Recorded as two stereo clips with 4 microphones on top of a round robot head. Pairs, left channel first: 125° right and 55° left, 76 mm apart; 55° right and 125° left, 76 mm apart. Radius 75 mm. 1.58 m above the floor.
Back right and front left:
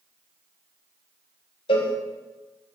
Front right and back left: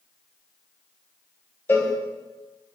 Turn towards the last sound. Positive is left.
turn(degrees=-120)